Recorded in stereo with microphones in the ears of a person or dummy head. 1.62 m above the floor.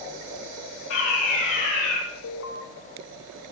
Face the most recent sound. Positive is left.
turn(degrees=65)  # may be behind; listen again after turning